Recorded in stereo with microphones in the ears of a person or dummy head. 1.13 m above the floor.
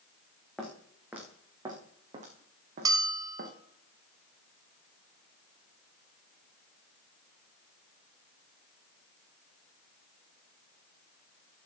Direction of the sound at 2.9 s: 25° right (ahead or behind).